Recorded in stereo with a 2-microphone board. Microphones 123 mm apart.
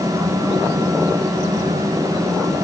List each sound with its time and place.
Only background noise.